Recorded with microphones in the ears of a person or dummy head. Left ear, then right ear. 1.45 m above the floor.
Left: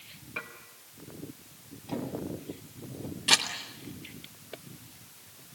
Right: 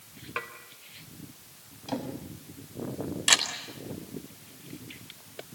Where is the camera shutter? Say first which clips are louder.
Right 1 dB; 35° right (ahead or behind), 4 m.